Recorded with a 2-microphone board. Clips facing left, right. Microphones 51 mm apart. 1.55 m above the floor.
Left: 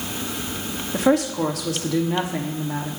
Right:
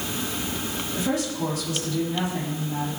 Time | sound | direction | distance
0.9 | a woman speaking | 65° left (ahead or behind) | 2.5 m